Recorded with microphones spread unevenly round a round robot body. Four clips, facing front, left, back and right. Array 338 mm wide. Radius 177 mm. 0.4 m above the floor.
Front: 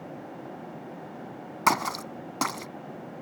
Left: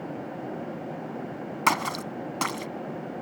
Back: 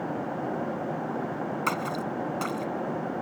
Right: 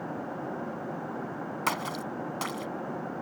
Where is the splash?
40° left.